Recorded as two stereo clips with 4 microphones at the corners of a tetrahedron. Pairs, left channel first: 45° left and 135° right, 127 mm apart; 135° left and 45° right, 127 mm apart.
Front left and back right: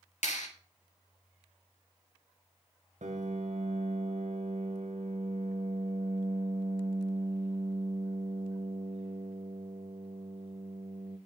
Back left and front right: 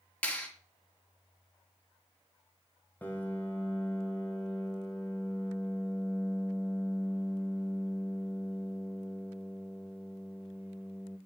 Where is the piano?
150° right, 1.5 m.